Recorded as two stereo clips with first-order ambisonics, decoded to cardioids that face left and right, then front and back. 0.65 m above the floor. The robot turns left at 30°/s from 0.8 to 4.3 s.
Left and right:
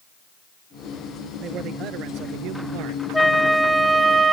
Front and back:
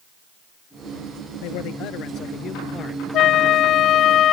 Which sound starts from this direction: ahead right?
A man speaking, at 1.4 s.